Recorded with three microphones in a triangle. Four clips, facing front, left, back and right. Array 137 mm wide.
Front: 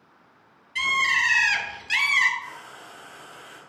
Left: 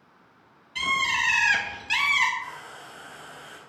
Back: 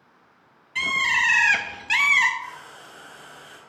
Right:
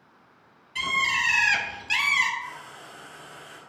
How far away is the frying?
About 3 m.